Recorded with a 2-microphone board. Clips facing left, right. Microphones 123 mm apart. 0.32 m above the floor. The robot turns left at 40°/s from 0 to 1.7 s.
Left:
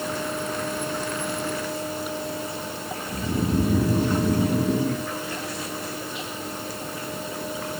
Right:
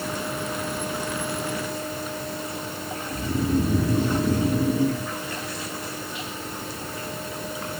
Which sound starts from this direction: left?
Snoring, at 3.1 s.